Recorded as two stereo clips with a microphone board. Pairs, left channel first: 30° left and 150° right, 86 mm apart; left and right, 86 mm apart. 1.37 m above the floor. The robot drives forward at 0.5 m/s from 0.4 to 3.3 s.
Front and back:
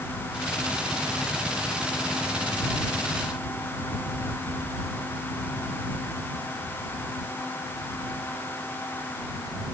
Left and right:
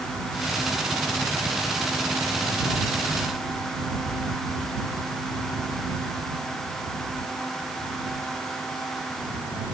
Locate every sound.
Only background noise.